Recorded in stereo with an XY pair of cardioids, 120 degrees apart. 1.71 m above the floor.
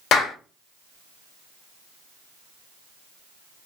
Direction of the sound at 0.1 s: 70° left.